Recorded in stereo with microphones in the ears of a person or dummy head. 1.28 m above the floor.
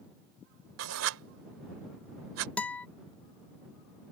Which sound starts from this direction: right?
Writing, at 0.8 s.